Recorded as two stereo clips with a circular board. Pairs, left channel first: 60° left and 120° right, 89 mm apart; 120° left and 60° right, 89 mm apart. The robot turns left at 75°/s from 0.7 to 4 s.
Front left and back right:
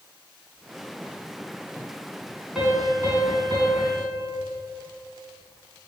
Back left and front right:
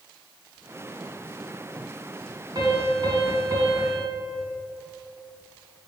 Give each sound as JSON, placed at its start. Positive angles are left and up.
{"t": 2.5, "sound": "a piano", "azimuth_deg": -35, "distance_m": 2.5}